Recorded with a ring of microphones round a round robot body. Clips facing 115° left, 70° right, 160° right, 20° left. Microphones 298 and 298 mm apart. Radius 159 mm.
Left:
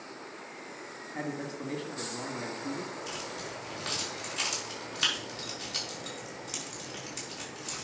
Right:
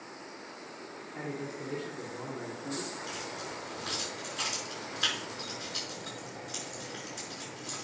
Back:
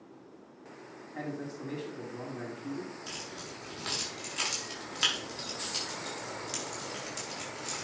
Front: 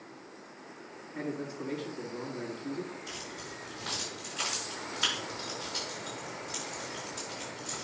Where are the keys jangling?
160° left, 5.5 m.